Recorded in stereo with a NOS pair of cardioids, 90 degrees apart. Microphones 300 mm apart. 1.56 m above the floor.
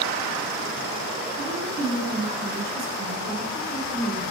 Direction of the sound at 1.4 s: 70° right.